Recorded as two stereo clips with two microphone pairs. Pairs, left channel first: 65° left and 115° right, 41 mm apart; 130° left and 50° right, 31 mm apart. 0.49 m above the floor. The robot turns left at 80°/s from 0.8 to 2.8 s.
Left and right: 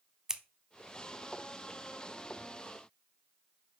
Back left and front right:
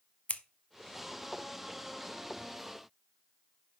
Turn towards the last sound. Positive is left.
turn(degrees=10)